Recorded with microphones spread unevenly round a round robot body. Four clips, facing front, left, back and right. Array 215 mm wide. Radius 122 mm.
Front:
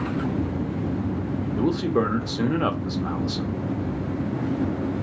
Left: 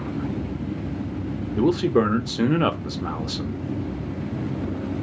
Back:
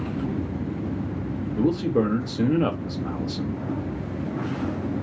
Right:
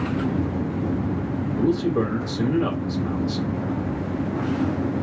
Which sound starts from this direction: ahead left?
A man speaking, at 1.6 s.